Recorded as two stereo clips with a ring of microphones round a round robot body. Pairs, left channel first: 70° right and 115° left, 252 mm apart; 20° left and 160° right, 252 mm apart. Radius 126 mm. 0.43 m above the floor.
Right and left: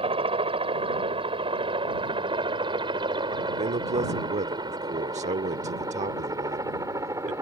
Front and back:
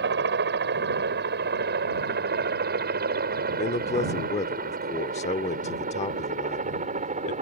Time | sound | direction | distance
0.0 | a helicopter | 175° left | ?
3.6 | a man speaking | 70° left | ?